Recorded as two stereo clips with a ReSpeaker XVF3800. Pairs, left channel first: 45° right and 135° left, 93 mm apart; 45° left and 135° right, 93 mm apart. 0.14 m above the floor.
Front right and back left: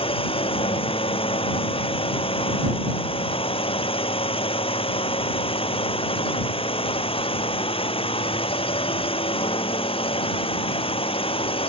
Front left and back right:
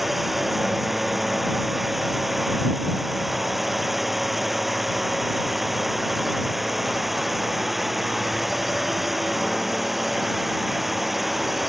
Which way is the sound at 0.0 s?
45° right.